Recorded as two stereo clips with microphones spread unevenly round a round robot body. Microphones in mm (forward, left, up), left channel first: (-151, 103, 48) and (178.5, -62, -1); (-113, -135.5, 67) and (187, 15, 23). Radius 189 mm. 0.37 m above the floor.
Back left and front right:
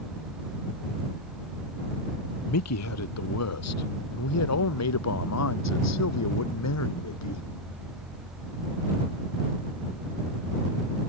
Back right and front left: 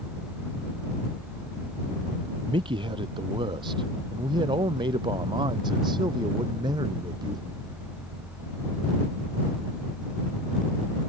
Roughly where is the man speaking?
Left.